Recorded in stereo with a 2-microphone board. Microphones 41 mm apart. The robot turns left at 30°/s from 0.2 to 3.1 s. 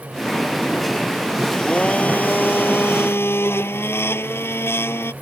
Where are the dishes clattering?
No dishes clattering in this recording.